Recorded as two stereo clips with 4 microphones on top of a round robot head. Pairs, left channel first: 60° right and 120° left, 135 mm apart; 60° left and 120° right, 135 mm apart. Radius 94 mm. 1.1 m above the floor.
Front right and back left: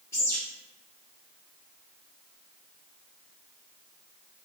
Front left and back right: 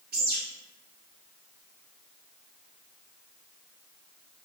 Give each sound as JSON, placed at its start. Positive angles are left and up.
{"t": 0.1, "sound": "a bird", "azimuth_deg": -125, "distance_m": 0.9}